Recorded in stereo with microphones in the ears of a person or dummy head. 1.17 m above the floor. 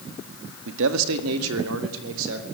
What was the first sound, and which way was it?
A man speaking, 70° right (ahead or behind).